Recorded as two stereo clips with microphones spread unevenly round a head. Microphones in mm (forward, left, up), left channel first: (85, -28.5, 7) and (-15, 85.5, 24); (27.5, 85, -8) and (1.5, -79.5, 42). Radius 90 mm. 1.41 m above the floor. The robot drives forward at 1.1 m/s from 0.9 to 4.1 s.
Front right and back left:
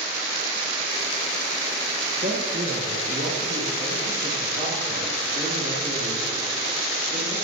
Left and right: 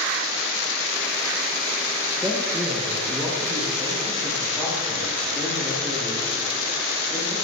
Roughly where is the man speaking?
Behind.